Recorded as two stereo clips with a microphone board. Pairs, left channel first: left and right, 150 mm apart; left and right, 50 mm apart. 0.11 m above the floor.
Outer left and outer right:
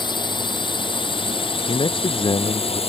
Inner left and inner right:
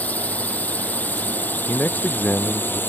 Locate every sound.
0.0 s a drone: 30° left (ahead or behind); by 2.9 s 40° left (ahead or behind)
1.7 s a man speaking: 35° left (ahead or behind)